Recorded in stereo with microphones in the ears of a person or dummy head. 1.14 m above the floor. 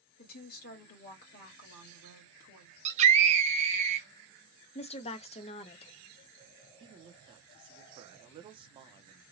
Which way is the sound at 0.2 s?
50° left (ahead or behind).